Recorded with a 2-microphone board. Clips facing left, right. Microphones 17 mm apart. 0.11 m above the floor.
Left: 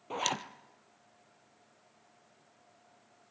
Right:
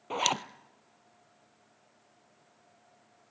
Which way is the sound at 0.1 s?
25° right (ahead or behind).